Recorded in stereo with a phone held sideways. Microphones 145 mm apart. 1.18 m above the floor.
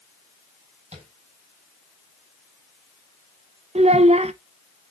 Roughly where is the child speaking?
Right.